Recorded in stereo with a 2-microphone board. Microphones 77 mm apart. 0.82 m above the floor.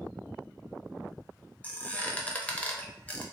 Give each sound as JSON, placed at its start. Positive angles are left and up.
{"t": 1.6, "sound": "a squeak", "side_deg": 20, "distance_m": 0.6}